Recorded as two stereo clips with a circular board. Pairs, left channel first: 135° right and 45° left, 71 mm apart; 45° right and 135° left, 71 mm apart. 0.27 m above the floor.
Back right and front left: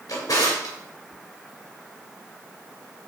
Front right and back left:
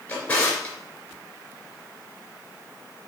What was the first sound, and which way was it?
A drawer, 115° right.